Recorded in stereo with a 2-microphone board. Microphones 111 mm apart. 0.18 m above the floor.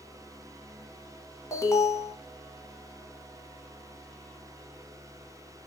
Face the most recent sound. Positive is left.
turn(degrees=30)  # may be behind; listen again after turning